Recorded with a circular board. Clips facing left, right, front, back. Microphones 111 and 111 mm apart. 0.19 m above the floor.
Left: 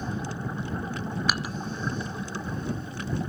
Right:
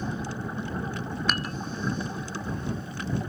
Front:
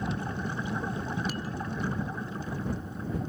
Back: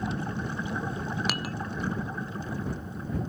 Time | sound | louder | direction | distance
1.3 | dishes clattering | right 3 dB, back 2 dB | 175° left | ?